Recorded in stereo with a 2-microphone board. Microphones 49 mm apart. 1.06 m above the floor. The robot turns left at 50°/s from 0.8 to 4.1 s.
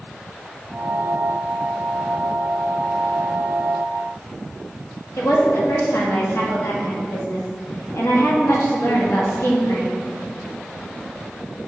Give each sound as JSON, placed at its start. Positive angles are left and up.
{"t": 5.2, "sound": "a woman speaking", "side_deg": 65, "distance_m": 1.7}